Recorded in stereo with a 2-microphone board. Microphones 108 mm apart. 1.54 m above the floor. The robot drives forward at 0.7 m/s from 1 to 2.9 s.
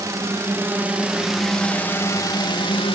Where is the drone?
30° right (ahead or behind); by 3.0 s 60° left (ahead or behind).